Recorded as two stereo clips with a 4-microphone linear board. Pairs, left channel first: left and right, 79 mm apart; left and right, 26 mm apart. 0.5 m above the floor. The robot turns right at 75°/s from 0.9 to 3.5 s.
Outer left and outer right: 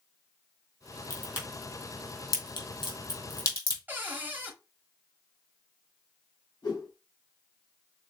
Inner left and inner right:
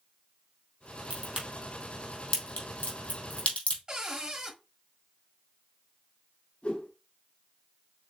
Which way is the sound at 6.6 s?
55° left (ahead or behind).